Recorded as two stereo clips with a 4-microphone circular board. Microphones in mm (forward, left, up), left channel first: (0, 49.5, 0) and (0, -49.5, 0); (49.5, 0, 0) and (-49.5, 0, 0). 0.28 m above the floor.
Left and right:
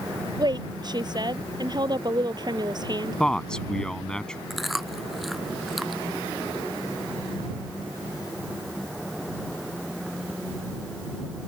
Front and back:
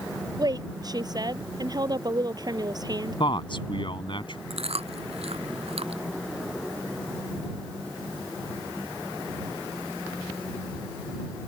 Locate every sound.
0.4 s a woman speaking: 135° right
3.2 s a man speaking: 10° left
4.5 s chewing: straight behind